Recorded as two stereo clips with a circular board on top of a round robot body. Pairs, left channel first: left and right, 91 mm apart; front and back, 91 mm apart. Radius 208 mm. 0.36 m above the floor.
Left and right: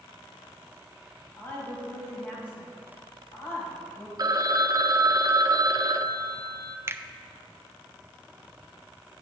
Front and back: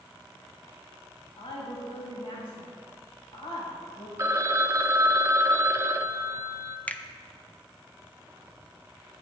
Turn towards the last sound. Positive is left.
turn(degrees=-60)